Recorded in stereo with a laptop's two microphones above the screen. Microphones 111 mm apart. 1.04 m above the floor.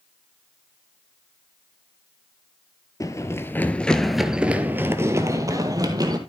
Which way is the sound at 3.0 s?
30° left (ahead or behind).